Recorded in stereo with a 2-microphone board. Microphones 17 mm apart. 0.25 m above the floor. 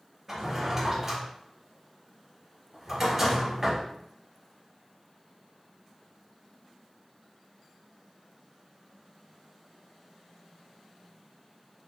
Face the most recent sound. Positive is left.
turn(degrees=-20)  # may be behind; listen again after turning